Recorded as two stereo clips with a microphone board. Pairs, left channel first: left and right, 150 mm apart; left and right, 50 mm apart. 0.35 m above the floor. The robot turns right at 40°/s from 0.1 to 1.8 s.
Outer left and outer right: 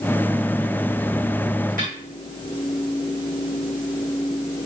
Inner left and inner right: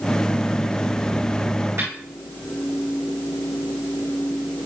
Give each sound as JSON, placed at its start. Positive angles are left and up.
{"t": 1.8, "sound": "a snare drum", "side_deg": -65, "distance_m": 5.5}